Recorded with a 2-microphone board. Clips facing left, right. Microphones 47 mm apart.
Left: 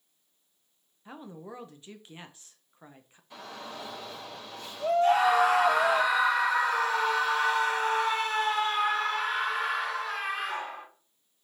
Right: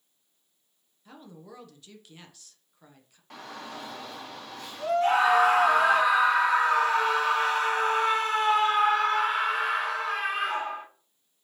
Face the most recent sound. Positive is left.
turn(degrees=-50)  # may be behind; listen again after turning